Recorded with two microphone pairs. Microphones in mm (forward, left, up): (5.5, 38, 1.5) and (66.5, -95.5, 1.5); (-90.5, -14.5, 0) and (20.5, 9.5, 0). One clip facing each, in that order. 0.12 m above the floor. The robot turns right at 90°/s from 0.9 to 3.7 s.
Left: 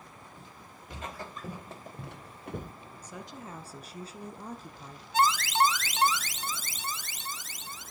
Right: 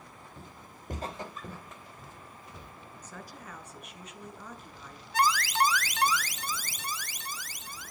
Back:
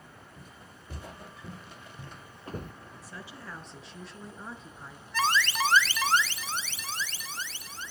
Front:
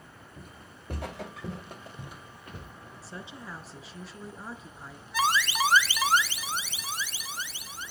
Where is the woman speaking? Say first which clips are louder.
Left 3 dB, front 2 dB; 40° left, 1.4 m; by 5.0 s 100° left, 1.4 m.